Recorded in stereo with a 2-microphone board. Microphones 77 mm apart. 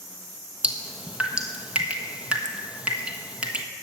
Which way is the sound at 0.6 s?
15° right (ahead or behind).